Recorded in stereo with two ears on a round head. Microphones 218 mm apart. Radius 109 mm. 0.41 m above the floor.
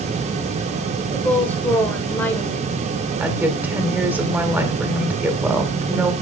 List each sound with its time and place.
1.1 s a woman speaking: 10° left (ahead or behind), 1.1 m
3.2 s a woman speaking: 10° right (ahead or behind), 1.6 m